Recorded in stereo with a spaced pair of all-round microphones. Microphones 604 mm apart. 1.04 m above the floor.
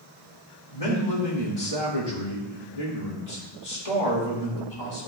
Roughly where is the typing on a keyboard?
I don't hear typing on a keyboard.